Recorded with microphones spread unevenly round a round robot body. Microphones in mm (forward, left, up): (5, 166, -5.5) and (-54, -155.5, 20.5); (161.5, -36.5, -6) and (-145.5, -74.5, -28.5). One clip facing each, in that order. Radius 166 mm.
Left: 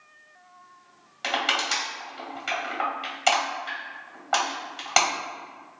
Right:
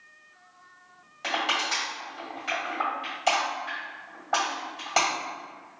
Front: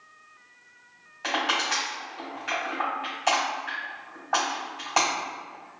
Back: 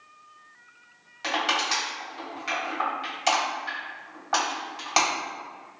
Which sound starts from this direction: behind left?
Crushing, at 1.2 s.